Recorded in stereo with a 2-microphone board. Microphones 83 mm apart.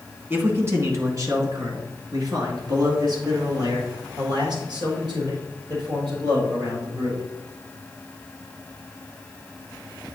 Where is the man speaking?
25° right (ahead or behind), 1.6 m; by 7.2 s 65° right (ahead or behind), 6.5 m.